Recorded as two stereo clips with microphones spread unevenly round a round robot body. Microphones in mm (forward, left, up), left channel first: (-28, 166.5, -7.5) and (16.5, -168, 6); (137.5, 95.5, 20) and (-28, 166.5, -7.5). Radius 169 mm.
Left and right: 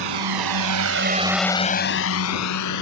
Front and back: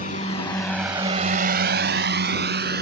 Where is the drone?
90° right; by 2.8 s 135° left.